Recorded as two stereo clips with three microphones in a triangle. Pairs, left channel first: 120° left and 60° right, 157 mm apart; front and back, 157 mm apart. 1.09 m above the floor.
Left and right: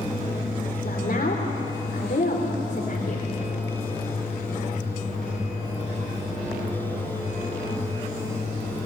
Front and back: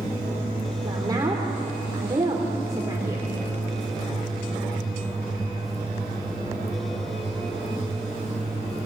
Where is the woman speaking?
115° left, 3 m.